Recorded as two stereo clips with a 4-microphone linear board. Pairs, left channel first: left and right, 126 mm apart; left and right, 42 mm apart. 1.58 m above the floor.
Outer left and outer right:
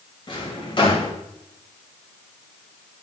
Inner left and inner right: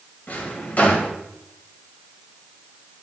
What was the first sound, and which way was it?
A drawer, 40° left (ahead or behind).